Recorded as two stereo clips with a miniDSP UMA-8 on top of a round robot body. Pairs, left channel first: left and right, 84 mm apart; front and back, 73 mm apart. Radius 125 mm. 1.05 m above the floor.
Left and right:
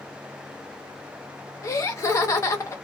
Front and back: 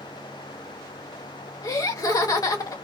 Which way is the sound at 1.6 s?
35° left.